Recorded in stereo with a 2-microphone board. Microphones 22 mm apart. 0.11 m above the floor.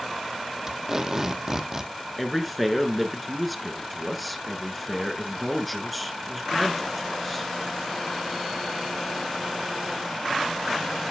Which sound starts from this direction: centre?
A man speaking, at 2.2 s.